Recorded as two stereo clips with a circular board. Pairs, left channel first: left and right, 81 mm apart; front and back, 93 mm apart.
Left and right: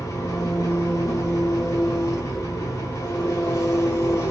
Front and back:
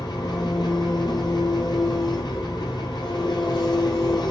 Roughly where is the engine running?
Ahead left.